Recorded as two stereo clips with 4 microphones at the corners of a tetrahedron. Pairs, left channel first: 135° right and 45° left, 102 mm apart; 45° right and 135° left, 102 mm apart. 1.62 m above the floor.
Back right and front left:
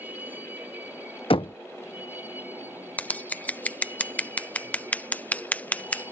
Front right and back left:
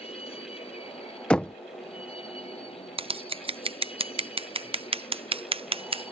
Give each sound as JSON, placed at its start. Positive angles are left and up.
{"t": 0.0, "sound": "a vehicle", "azimuth_deg": -30}
{"t": 1.3, "sound": "knocking", "azimuth_deg": -125}
{"t": 3.0, "sound": "scissors", "azimuth_deg": 150}